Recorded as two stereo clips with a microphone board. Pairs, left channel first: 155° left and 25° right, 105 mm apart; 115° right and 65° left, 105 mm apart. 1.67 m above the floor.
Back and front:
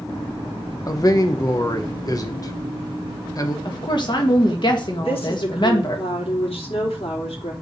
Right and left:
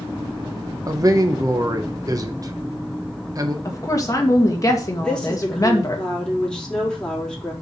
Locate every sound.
0.9 s a man speaking: 115° left, 1.0 m
3.6 s a woman speaking: 165° right, 1.6 m
5.0 s a woman speaking: 165° left, 4 m